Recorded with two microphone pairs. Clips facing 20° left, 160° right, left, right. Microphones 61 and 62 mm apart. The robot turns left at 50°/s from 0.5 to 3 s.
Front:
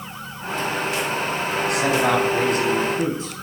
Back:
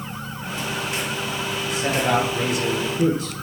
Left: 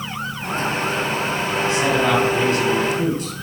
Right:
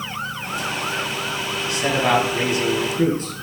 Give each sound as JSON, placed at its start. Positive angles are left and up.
{"t": 1.6, "sound": "a man speaking", "azimuth_deg": 25, "distance_m": 4.5}